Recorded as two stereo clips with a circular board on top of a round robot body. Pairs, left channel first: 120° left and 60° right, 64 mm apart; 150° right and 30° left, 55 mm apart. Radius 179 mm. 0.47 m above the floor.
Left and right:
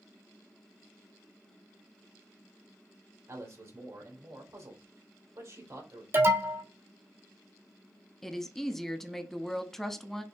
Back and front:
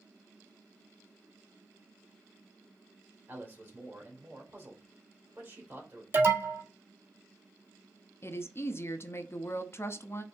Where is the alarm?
15° right, 1.5 m.